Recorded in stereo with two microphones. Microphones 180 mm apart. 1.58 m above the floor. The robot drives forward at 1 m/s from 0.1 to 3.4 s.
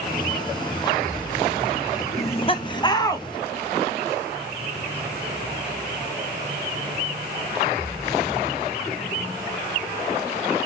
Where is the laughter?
40° left (ahead or behind), 1.1 m; by 3.2 s 20° left (ahead or behind), 2 m.